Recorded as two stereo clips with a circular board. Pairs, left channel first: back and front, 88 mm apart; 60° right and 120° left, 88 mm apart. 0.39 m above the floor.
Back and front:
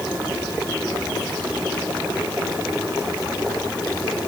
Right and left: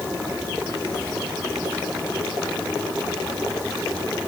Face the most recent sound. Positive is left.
No sound to turn to.